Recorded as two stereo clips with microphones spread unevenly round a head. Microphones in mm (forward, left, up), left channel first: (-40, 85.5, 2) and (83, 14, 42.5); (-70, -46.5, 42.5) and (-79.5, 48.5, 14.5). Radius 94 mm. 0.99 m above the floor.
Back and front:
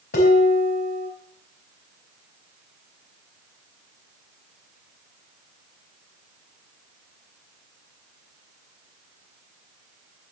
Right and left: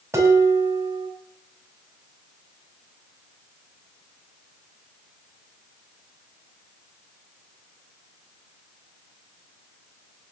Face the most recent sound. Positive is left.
turn(degrees=160)